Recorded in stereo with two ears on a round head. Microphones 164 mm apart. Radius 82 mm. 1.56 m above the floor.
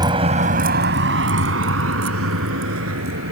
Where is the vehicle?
25° right (ahead or behind); by 3.3 s 80° right.